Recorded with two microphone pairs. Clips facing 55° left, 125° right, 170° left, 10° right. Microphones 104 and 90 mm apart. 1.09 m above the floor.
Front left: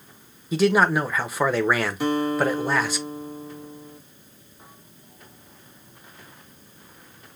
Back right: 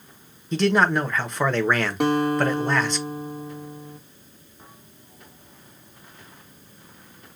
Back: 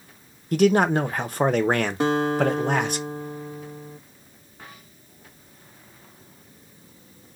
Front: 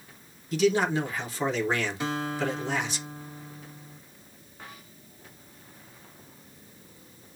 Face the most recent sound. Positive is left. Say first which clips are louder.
# back right 4 dB, back 9 dB
turn(degrees=-155)